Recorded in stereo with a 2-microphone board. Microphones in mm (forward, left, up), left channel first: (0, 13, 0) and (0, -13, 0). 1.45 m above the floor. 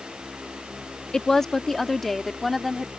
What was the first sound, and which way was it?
A woman speaking, 20° left (ahead or behind).